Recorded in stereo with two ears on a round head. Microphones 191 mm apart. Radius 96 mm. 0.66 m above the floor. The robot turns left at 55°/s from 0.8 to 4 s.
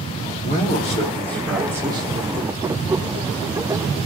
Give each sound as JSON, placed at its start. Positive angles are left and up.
{"t": 0.4, "sound": "a man speaking", "azimuth_deg": 40, "distance_m": 1.8}